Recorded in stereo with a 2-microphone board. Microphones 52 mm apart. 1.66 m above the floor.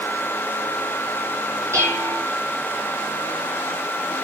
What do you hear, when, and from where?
1.7 s dishes clattering: 70° right (ahead or behind), 4 m